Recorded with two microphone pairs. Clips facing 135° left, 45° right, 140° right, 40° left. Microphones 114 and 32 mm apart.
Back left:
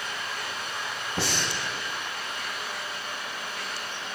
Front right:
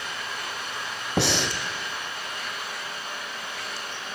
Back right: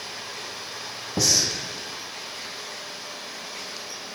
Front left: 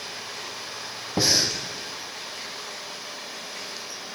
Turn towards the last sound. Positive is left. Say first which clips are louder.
# front right 6 dB, front left 1 dB
turn(degrees=-20)